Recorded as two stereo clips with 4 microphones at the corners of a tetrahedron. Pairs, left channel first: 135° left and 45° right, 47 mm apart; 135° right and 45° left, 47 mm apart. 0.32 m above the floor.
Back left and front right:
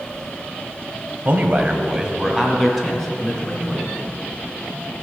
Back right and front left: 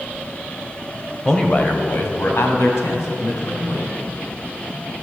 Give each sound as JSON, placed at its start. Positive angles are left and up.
{"t": 1.2, "sound": "a man speaking", "azimuth_deg": -60, "distance_m": 1.2}